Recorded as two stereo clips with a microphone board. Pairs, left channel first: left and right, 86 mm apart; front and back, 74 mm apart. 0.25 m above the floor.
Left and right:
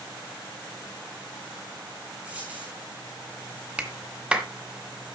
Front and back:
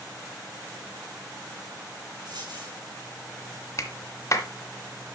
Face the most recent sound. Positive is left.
turn(degrees=-15)